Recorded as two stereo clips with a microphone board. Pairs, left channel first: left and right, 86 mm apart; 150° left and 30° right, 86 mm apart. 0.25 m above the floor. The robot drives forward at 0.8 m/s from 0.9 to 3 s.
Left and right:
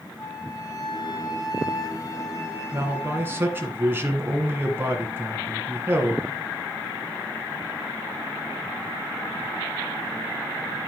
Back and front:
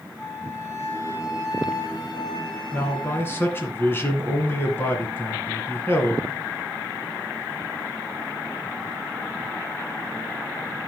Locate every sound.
0.2 s a flute: 100° left, 2.5 m; by 3.7 s 140° left, 3 m
2.7 s a man speaking: 145° right, 1.8 m; by 6.2 s 150° right, 2.0 m